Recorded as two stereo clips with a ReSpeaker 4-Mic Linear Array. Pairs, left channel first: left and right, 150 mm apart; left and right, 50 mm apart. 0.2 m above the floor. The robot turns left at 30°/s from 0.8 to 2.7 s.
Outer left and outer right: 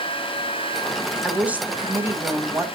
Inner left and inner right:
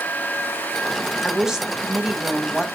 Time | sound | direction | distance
1.2 | a woman speaking | 5° right (ahead or behind) | 1.5 m